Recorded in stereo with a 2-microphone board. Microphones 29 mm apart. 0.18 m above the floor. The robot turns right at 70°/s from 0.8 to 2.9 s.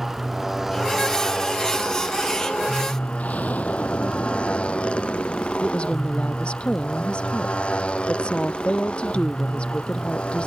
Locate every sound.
0.0 s a motorcycle: 10° right; by 10.5 s 135° left
3.2 s an explosion: 65° left (ahead or behind)
5.6 s a woman speaking: 40° left (ahead or behind)